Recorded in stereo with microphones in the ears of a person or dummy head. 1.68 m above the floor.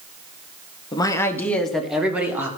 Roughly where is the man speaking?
Left.